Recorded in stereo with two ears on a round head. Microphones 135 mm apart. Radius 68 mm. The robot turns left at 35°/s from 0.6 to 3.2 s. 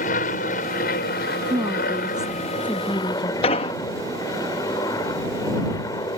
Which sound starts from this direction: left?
An explosion, at 3.4 s.